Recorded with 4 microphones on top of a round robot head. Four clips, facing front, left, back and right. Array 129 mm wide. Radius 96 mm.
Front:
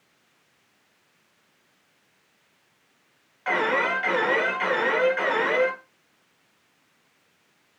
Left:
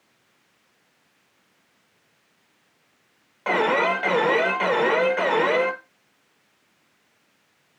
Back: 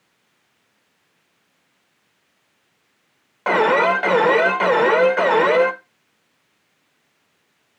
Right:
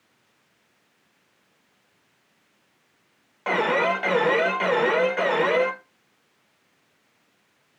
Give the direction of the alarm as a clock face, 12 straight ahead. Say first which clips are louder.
Left 1 dB, back 8 dB; 6 o'clock.